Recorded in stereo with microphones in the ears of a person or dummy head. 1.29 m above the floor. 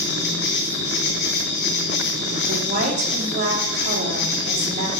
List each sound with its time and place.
0.0 s an insect: 60° left (ahead or behind), 3 m
2.5 s a woman speaking: 55° right (ahead or behind), 3 m